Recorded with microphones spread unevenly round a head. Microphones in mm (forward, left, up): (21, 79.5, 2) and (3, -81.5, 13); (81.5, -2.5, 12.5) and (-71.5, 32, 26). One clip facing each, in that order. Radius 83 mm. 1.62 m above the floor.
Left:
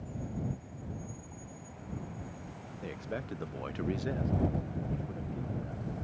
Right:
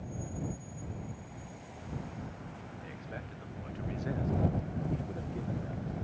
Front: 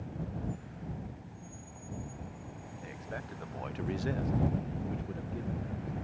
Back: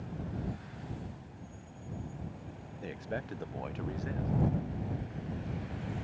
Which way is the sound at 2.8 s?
120° left.